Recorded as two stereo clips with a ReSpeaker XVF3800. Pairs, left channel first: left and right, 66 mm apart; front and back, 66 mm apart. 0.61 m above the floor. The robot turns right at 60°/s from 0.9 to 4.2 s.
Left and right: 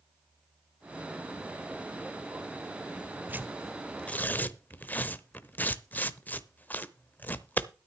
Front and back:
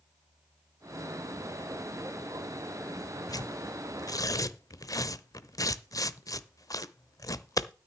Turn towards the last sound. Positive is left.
turn(degrees=25)